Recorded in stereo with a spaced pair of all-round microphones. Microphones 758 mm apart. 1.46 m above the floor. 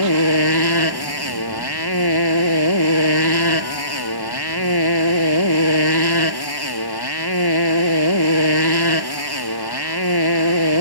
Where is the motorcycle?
30° left (ahead or behind).